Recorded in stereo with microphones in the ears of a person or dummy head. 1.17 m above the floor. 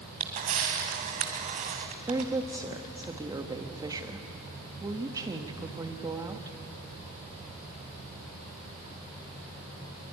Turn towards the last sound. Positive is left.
turn(degrees=-15)  # may be behind; listen again after turning